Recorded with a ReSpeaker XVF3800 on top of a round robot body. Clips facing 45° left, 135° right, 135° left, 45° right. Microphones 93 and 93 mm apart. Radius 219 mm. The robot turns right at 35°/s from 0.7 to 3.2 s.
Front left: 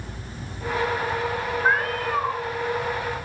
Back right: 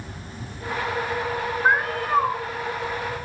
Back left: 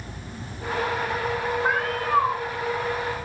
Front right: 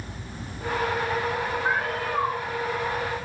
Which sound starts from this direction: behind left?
A cat meowing, at 1.6 s.